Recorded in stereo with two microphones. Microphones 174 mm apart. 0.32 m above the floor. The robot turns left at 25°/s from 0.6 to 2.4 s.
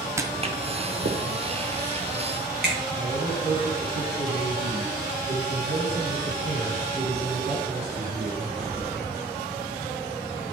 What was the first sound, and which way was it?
Footsteps, 15° right (ahead or behind).